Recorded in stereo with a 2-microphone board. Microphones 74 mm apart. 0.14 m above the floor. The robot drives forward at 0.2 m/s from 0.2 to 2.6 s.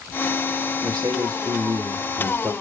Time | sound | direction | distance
0.8 | a man speaking | 60° right (ahead or behind) | 4.5 m